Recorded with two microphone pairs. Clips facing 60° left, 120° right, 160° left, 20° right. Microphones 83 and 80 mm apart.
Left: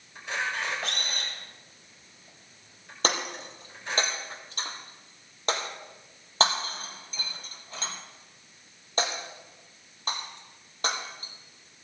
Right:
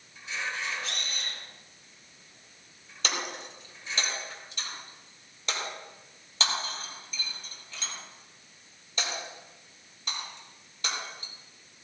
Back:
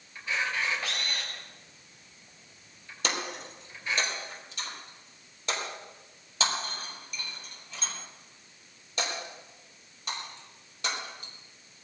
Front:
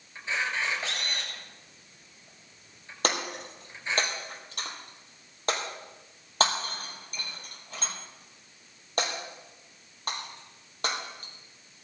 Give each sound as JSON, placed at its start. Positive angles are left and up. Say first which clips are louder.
{"t": 0.1, "sound": "a camera shutter", "louder": "left 4 dB, even", "azimuth_deg": 40, "distance_m": 6.0}
{"t": 3.0, "sound": "breaking glass", "louder": "left 4 dB, front 3 dB", "azimuth_deg": 15, "distance_m": 3.0}